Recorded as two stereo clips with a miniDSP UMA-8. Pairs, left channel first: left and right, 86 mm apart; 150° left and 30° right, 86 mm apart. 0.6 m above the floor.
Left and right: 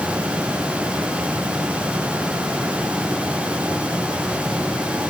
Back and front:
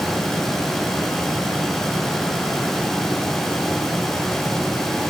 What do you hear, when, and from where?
Only background noise.